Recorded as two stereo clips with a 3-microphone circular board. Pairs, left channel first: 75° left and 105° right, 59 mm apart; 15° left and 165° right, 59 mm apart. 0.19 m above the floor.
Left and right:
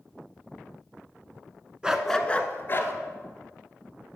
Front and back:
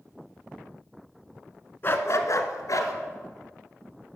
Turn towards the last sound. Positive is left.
turn(degrees=30)